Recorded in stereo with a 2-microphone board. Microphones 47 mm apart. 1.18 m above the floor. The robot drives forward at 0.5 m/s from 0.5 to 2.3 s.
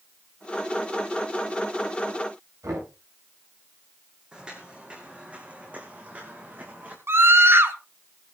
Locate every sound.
2.6 s knocking: 70° right (ahead or behind), 9.5 m
4.3 s footsteps: 20° right (ahead or behind), 3.5 m; by 7.0 s 35° right (ahead or behind), 4.5 m
7.1 s a scream: 50° right (ahead or behind), 1.9 m